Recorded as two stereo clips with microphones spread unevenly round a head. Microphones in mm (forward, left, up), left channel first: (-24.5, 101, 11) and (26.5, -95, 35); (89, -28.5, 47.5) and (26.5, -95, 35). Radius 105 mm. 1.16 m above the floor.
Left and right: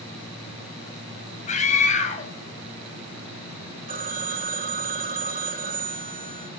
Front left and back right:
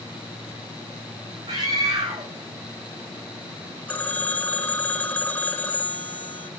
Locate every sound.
1.5 s a scream: 160° left, 6 m
3.9 s a phone ringing: 25° right, 3 m